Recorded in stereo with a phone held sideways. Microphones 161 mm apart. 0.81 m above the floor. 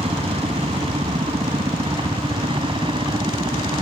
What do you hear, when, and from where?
0.0 s a helicopter: 35° right (ahead or behind); by 3.8 s 30° right (ahead or behind)